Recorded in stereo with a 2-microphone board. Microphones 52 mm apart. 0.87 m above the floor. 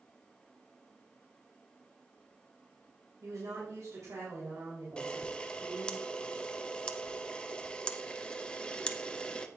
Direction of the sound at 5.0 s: 15° left (ahead or behind).